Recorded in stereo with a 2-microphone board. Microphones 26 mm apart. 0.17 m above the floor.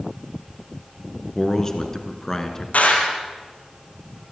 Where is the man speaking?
20° left (ahead or behind), 2.5 m.